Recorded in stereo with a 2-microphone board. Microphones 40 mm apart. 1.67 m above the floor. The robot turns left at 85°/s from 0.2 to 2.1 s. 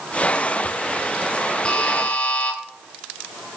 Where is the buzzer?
135° left, 1.1 m; by 2.6 s 100° left, 1.1 m.